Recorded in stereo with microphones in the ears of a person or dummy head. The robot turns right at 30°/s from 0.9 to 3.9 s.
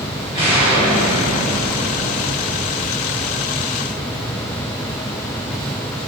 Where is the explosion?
35° right, 1.8 m; by 3.6 s 50° left, 1.8 m.